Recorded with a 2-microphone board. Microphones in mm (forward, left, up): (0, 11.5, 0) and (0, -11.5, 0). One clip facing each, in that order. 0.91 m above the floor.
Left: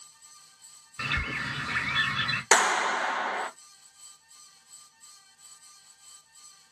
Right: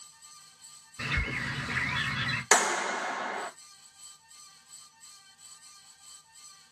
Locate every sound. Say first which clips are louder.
1.0 s a bird: left 2 dB; 35° left (ahead or behind), 1.8 m
2.5 s a clap: left 3 dB; 45° left (ahead or behind), 0.6 m